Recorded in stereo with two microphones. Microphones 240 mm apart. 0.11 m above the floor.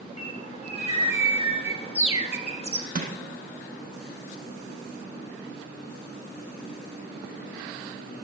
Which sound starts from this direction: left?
A bird, at 0.2 s.